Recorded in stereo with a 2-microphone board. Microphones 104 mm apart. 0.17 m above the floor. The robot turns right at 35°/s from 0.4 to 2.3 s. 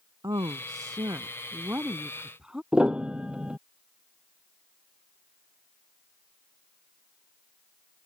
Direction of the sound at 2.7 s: 10° right (ahead or behind).